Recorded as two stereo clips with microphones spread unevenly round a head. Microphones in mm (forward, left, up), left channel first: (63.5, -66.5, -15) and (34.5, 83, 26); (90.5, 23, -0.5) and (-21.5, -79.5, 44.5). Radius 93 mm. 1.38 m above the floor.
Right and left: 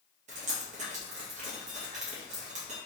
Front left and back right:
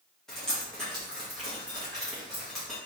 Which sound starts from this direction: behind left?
Dripping, at 0.3 s.